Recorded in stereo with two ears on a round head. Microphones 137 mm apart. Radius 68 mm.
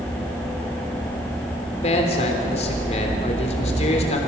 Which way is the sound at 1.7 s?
45° left (ahead or behind).